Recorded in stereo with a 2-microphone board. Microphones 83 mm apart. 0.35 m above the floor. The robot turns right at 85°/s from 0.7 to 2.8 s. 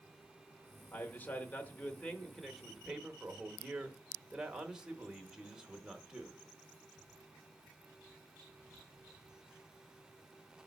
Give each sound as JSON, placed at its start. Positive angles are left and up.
{"t": 0.9, "sound": "a man speaking", "side_deg": 15, "distance_m": 0.9}